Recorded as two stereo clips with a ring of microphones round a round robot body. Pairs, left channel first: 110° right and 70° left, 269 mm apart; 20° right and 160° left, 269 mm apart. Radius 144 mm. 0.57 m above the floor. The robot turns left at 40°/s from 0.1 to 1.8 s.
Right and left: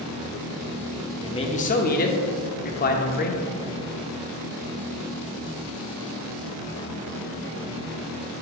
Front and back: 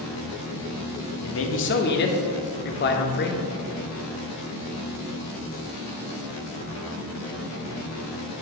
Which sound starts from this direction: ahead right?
A man speaking, at 1.2 s.